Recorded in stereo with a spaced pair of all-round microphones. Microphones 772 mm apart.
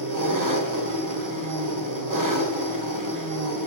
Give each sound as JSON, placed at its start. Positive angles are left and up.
{"t": 0.0, "sound": "an engine running", "side_deg": -25, "distance_m": 1.1}